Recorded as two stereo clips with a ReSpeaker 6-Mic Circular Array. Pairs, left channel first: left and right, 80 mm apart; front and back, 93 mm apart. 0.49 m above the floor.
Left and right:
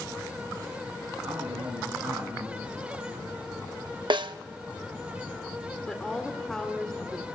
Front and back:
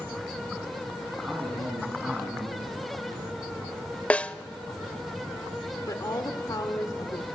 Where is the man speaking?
110° right, 4.5 m.